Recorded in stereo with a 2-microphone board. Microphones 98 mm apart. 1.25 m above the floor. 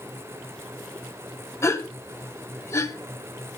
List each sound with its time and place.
1.6 s a gasp: 30° left (ahead or behind), 1.1 m